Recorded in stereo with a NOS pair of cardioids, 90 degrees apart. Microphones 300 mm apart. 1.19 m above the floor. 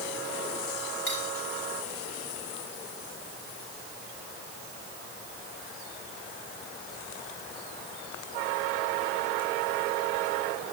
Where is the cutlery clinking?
45° left, 6.5 m.